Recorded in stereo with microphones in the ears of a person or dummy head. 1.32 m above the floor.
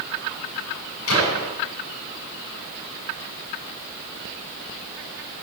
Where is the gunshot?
70° left (ahead or behind), 9 m.